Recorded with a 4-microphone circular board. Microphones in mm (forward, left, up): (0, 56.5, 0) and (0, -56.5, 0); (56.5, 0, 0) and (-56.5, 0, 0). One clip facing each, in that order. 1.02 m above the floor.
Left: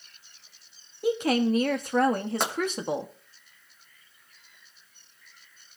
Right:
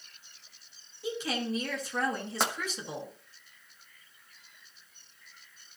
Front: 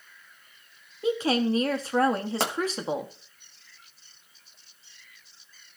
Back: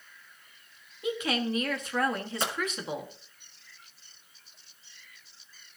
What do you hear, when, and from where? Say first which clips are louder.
1.0 s a woman speaking: left 10 dB, front 6 dB; 60° left, 1.4 m
2.4 s a pop: left 1 dB, front 2 dB; straight ahead, 1.7 m